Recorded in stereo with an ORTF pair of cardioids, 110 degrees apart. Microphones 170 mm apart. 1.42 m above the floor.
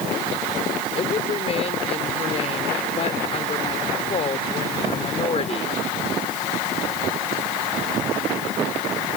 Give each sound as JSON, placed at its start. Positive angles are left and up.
{"t": 1.0, "sound": "a woman speaking", "azimuth_deg": 35}